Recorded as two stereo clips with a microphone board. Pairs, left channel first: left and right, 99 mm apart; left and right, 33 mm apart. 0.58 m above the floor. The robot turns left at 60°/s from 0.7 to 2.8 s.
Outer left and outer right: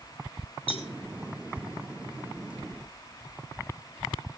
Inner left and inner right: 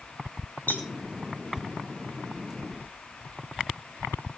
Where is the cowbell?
75° left (ahead or behind), 4 m; by 0.9 s 70° left (ahead or behind), 4 m.